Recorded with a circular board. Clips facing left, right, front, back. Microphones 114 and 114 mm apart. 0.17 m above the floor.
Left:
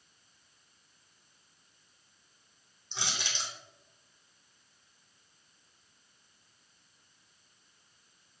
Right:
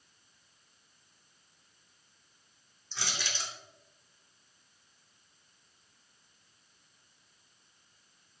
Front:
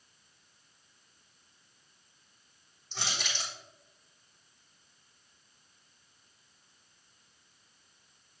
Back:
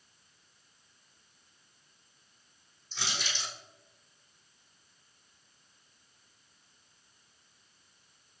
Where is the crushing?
20° left, 4 m.